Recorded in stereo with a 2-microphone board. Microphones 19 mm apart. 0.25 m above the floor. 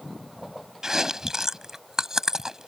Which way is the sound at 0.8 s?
25° right (ahead or behind).